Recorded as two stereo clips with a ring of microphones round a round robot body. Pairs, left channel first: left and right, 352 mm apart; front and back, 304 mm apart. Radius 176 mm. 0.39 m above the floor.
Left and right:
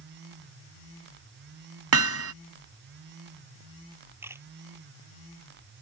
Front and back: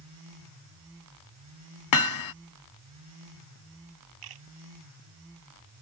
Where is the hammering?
40° right.